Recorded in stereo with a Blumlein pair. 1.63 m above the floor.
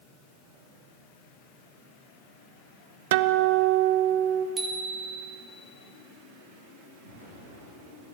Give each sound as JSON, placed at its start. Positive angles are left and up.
{"t": 3.1, "sound": "a guitar", "azimuth_deg": -55, "distance_m": 0.7}
{"t": 4.6, "sound": "a bicycle bell", "azimuth_deg": -15, "distance_m": 2.5}
{"t": 7.0, "sound": "an explosion", "azimuth_deg": -65, "distance_m": 8.0}